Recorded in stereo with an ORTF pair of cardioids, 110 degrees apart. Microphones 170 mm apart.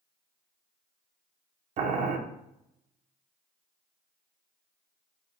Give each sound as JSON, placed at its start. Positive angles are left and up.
{"t": 1.8, "sound": "boiling", "azimuth_deg": -45, "distance_m": 0.6}